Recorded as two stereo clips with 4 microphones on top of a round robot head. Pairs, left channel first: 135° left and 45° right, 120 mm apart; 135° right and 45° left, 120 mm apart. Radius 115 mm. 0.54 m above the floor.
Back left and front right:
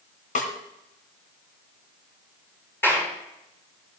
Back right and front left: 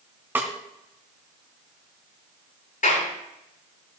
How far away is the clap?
About 7.5 m.